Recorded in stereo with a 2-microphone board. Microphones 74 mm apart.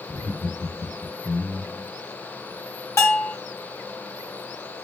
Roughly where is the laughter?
Left.